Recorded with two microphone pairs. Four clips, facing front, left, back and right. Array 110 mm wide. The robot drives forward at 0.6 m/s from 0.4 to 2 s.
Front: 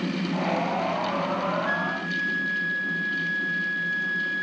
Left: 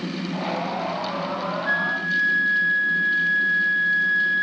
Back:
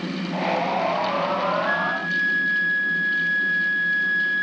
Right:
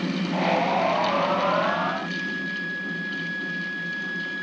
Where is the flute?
105° left; by 4.4 s 125° left.